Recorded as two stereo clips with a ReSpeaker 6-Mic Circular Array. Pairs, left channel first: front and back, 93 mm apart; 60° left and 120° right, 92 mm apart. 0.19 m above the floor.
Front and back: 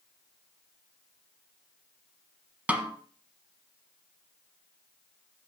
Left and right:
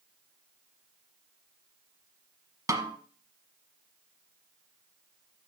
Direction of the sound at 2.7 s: 115° right.